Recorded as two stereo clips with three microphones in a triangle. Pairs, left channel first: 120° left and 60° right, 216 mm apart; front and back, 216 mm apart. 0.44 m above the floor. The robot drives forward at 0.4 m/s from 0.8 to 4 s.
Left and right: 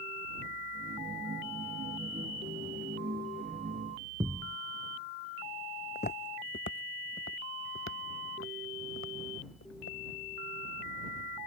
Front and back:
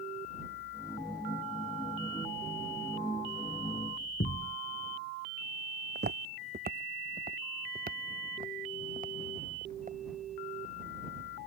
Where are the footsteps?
155° left; by 10.0 s 130° left.